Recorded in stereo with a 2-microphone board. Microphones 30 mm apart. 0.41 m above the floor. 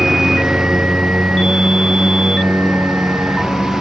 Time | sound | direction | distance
0.0 | a lawn mower | 25° right (ahead or behind) | ?